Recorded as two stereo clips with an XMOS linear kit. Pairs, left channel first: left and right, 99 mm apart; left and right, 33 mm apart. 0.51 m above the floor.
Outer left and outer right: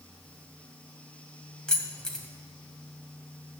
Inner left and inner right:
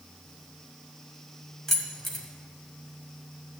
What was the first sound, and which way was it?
Keys jangling, 10° left (ahead or behind).